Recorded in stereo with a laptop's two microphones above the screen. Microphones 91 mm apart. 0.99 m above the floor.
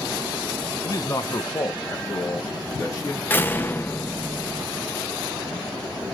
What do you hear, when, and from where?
0.8 s a man speaking: 40° left (ahead or behind), 0.7 m; by 3.2 s 20° left (ahead or behind), 1.4 m
3.3 s a door slam: 25° left (ahead or behind), 0.6 m